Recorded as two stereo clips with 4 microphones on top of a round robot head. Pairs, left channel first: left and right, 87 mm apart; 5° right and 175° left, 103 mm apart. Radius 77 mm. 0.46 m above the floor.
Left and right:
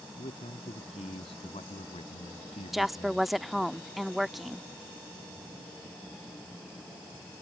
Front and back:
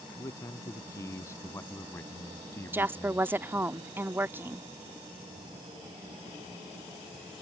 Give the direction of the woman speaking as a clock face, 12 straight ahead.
6 o'clock.